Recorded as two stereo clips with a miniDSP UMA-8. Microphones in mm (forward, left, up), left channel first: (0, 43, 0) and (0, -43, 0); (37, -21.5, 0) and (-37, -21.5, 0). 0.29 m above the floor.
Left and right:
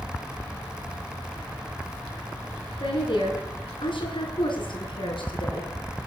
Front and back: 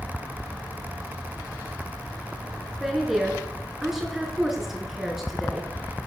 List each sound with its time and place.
2.8 s a woman speaking: 95° left, 5 m